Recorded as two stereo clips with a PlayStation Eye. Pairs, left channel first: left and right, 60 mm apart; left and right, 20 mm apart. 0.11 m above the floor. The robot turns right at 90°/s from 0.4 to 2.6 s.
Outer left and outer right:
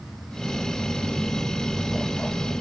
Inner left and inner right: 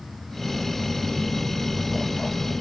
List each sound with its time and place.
Only background noise.